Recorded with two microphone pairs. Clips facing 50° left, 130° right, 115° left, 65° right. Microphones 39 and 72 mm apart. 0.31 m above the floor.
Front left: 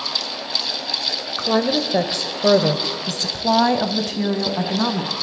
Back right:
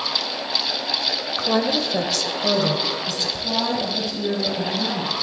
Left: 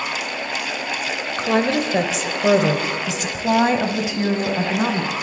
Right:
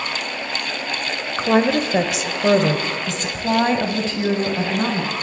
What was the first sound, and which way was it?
A woman speaking, 30° right.